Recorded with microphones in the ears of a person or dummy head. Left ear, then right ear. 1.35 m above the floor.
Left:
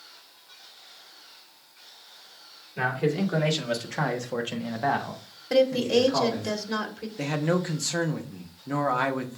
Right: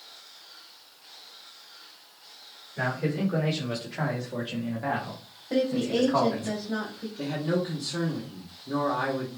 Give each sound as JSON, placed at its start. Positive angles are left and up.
{"t": 2.8, "sound": "a man speaking", "side_deg": 85, "distance_m": 1.8}
{"t": 5.5, "sound": "a woman speaking", "side_deg": 70, "distance_m": 1.4}
{"t": 7.2, "sound": "a man speaking", "side_deg": 60, "distance_m": 0.8}